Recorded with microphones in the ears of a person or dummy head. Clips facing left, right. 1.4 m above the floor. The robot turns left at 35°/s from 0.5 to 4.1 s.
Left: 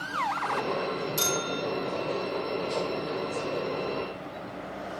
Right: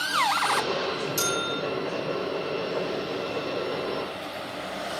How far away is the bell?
About 2.5 m.